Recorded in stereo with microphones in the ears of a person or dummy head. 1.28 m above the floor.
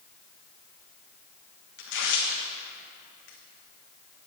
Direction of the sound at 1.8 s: 55° left (ahead or behind).